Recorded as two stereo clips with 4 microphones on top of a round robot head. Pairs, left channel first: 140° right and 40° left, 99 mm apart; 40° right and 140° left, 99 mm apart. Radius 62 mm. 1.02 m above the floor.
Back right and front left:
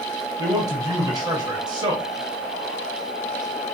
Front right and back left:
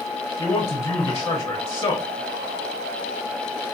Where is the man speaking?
10° left, 1.1 m.